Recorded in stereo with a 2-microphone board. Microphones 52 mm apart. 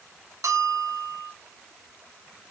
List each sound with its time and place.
0.4 s a bell: 75° right (ahead or behind), 2 m